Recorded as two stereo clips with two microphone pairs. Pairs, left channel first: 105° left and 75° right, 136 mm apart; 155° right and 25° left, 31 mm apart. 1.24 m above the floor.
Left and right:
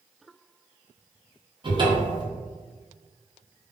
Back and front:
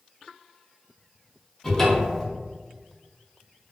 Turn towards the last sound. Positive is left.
turn(degrees=-85)